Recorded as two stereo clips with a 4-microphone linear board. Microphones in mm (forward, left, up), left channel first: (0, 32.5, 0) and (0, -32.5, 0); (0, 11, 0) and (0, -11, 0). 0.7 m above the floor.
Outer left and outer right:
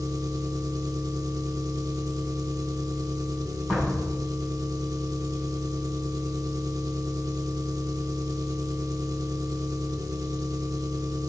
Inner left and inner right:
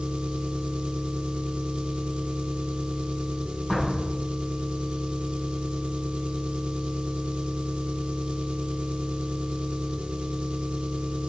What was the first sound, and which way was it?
An engine running, 60° right (ahead or behind).